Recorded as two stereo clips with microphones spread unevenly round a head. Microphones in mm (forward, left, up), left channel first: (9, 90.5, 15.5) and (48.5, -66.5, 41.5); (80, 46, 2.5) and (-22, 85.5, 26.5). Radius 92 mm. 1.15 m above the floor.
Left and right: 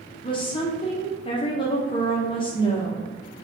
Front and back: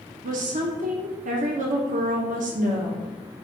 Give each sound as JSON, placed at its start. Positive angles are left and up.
{"t": 0.2, "sound": "a woman speaking", "azimuth_deg": 165, "distance_m": 0.6}